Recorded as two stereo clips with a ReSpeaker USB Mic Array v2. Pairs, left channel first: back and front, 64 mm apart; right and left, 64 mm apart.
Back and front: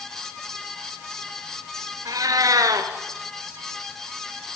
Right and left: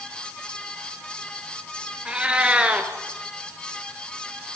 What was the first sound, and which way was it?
A cat meowing, 15° left.